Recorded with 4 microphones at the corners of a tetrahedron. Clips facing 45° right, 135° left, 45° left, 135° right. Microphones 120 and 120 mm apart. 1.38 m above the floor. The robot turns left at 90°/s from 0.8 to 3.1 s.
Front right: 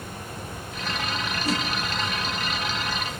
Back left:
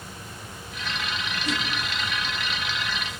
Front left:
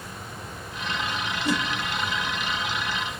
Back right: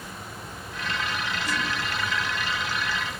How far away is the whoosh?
About 1.7 m.